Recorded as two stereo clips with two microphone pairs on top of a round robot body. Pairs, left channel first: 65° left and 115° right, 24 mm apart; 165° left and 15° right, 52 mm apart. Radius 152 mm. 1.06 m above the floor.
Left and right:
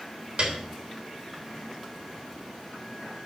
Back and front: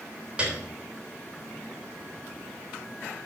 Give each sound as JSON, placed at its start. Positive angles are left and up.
{"t": 0.4, "sound": "a piano", "azimuth_deg": -85, "distance_m": 3.5}